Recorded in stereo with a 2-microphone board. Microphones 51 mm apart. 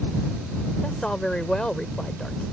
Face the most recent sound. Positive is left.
turn(degrees=15)  # may be behind; listen again after turning